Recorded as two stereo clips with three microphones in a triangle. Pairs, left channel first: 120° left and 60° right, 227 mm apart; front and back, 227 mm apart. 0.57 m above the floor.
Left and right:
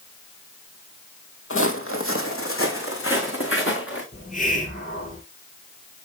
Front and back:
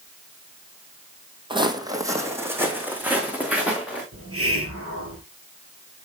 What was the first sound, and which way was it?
Footsteps, 115° left.